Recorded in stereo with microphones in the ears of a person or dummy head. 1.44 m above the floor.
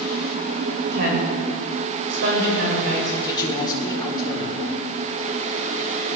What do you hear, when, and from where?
0.9 s a woman speaking: 65° right (ahead or behind), 8 m
3.2 s a man speaking: 25° left (ahead or behind), 4 m